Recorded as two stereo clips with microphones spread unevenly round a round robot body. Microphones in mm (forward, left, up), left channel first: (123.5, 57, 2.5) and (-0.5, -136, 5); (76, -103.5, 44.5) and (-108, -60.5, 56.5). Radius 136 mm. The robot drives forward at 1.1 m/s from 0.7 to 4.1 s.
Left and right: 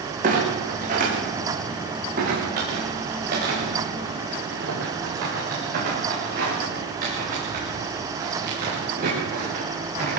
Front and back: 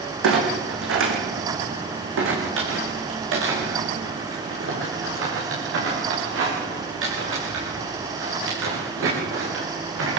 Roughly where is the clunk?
Behind.